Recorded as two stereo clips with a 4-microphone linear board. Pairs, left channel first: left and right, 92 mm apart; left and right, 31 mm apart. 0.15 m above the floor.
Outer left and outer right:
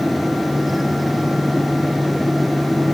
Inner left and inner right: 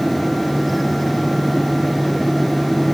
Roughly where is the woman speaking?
No woman speaking in this recording.